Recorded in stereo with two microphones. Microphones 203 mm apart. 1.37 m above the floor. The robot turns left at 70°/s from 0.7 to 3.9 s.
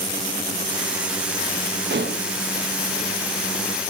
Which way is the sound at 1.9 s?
60° right (ahead or behind).